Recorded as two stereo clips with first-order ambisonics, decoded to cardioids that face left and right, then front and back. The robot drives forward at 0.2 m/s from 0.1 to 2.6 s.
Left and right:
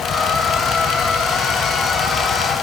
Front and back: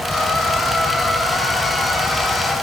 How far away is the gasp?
I don't hear a gasp.